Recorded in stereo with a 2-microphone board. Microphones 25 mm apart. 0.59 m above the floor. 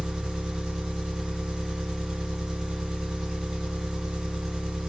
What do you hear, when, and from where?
0.0 s an engine running: 30° right (ahead or behind), 1.7 m